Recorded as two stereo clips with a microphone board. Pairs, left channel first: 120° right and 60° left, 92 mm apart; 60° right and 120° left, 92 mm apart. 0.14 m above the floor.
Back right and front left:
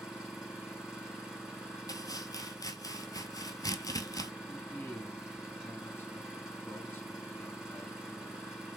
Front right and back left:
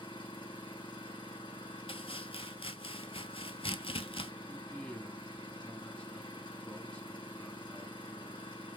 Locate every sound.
0.0 s an engine running: 25° right, 2.5 m
1.9 s chopping: 70° right, 0.5 m
4.5 s a man speaking: 120° right, 1.1 m